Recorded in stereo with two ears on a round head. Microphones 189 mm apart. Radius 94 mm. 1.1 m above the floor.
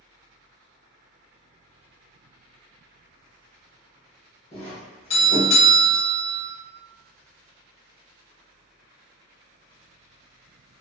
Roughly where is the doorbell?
Left.